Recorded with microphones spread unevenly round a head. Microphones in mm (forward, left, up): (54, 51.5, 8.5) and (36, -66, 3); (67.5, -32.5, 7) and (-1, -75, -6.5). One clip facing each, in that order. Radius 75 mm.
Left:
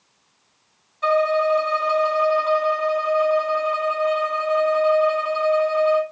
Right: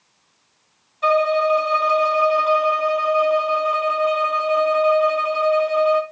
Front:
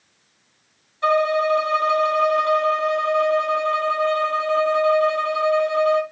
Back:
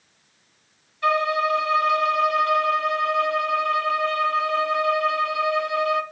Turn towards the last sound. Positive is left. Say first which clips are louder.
# right 1 dB, front 3 dB
turn(degrees=-20)